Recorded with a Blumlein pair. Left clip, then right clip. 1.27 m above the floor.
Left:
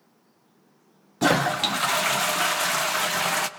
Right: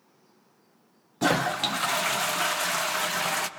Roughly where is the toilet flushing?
Ahead.